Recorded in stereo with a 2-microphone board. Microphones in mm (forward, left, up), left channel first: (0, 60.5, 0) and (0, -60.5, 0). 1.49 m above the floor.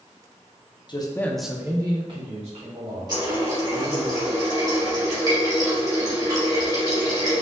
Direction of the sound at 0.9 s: 40° left (ahead or behind).